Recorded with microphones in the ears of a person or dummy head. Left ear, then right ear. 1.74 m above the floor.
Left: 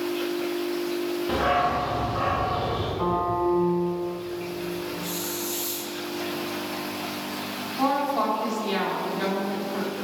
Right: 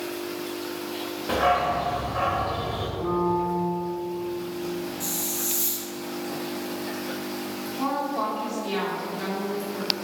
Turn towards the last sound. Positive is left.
turn(degrees=15)  # may be behind; listen again after turning